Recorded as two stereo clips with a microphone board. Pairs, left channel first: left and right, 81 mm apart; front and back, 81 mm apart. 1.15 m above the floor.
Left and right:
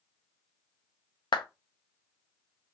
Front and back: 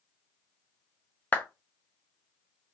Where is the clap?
70° left, 0.5 m.